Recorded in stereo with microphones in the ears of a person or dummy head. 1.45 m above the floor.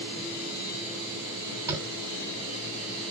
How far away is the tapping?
About 5.5 m.